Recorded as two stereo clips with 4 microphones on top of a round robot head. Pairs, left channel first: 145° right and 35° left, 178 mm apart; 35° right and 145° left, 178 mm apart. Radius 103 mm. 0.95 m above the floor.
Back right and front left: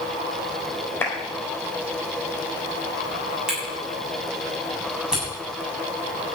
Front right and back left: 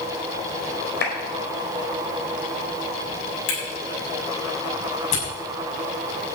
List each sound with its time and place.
1.0 s a clap: 65° right, 4.5 m
3.5 s a camera shutter: 50° right, 7.5 m